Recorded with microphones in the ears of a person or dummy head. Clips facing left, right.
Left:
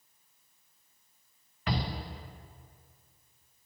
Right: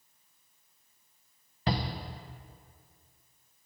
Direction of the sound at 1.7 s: 25° right (ahead or behind).